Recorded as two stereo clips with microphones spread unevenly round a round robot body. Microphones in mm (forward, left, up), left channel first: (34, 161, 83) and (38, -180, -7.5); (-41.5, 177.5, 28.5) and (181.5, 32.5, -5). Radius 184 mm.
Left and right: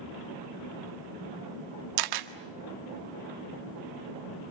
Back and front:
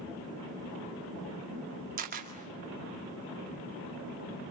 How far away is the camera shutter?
About 1.8 m.